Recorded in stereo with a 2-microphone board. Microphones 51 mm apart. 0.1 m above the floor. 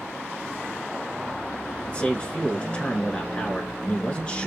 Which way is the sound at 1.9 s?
25° left (ahead or behind).